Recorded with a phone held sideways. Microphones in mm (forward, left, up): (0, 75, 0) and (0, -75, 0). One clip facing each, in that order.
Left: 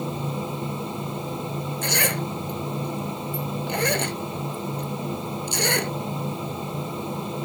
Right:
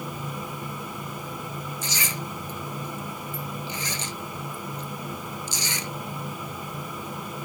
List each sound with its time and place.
0.0 s a fan: 25° left (ahead or behind)
1.8 s a zipper: 65° left (ahead or behind)